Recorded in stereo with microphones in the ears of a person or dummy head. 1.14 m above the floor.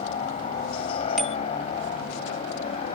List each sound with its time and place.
0.0 s a helicopter: 35° left (ahead or behind)
1.2 s a bicycle bell: centre (ahead or behind)